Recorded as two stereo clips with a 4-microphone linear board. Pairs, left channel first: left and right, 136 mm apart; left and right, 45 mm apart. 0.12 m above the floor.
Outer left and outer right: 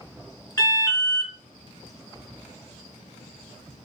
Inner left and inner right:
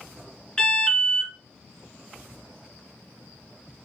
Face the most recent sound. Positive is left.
turn(degrees=15)  # may be behind; listen again after turning